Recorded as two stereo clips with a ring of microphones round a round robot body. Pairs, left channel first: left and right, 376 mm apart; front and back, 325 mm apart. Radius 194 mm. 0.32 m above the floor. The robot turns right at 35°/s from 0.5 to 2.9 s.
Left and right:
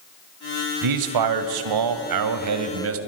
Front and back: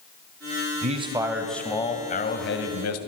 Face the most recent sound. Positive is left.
turn(degrees=-40)